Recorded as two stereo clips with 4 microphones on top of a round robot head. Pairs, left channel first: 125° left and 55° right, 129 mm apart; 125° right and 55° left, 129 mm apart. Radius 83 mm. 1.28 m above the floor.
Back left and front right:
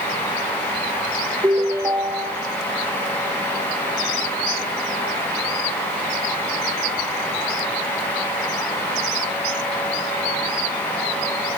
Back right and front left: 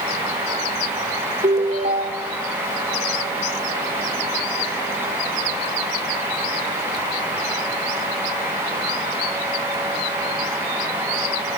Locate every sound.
1.4 s a ringtone: 15° left, 1.6 m